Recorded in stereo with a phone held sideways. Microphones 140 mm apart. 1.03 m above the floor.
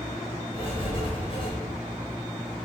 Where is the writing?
40° left (ahead or behind), 5 m.